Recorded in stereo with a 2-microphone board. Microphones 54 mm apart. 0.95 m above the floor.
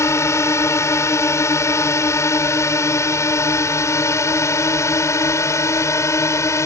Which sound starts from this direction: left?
A drone, at 0.0 s.